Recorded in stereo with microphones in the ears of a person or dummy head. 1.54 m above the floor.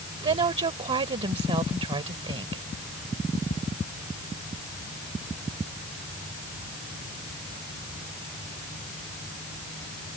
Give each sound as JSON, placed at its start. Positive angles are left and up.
{"t": 0.2, "sound": "a woman speaking", "side_deg": -30}